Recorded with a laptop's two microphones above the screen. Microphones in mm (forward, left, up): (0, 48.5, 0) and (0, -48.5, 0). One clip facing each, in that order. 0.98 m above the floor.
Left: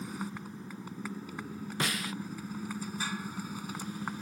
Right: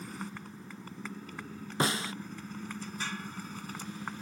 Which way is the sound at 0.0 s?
5° left (ahead or behind).